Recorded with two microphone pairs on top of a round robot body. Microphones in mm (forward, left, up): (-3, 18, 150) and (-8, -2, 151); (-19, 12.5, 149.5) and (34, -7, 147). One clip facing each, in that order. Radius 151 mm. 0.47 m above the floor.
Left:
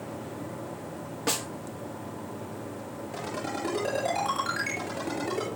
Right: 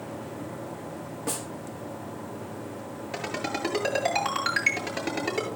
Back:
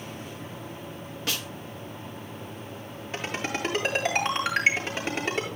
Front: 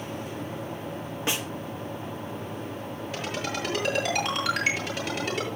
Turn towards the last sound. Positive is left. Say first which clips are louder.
# right 3 dB, back 2 dB
turn(degrees=-140)